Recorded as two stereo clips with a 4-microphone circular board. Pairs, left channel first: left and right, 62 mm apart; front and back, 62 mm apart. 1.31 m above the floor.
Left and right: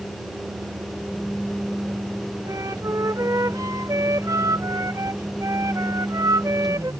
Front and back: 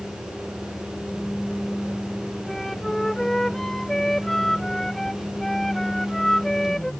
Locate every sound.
2.5 s a flute: 85° right